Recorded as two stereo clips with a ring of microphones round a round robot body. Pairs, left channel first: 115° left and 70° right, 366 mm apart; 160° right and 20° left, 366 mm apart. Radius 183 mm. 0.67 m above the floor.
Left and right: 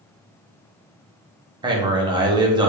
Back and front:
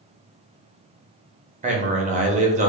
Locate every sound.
1.6 s a man speaking: 10° right, 0.6 m